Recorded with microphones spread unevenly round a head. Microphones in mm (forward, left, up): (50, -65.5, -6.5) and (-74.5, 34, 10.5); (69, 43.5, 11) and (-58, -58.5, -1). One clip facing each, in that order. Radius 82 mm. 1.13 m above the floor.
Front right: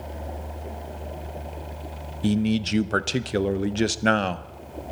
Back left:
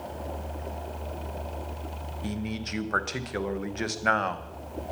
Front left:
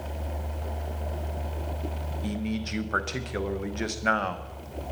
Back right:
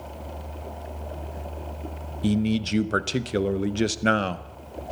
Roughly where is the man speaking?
Right.